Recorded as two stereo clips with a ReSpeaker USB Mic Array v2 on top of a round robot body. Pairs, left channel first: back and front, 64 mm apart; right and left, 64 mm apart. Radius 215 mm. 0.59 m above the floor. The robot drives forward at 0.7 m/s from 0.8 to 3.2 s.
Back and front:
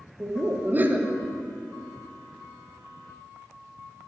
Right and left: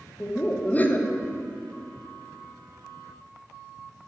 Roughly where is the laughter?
Ahead right.